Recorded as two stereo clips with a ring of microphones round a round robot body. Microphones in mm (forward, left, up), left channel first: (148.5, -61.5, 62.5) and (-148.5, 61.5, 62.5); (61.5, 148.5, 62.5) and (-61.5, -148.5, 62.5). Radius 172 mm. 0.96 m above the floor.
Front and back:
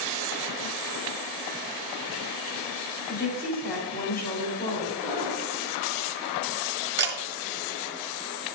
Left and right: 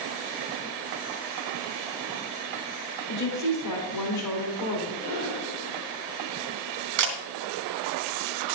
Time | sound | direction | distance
3.1 | a woman speaking | 40° left | 3 m
5.0 | breathing | 120° left | 4.5 m
7.0 | a camera shutter | 145° right | 2.0 m